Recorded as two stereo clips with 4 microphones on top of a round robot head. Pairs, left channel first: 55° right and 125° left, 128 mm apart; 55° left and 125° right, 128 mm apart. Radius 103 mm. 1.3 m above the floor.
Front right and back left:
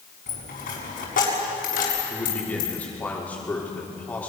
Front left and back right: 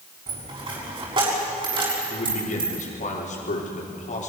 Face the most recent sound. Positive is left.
turn(degrees=25)